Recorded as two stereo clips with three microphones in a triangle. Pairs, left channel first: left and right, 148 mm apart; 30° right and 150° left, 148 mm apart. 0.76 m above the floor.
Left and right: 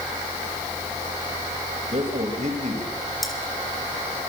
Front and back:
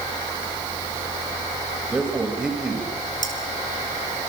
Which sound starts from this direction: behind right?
A man speaking, at 1.9 s.